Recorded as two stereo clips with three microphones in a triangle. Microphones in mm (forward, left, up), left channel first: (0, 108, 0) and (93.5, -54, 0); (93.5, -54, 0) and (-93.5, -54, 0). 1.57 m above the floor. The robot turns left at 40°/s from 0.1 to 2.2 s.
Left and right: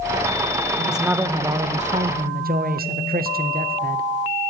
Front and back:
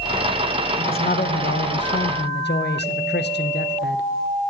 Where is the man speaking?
30° left, 0.6 m; by 4.0 s 25° right, 0.6 m.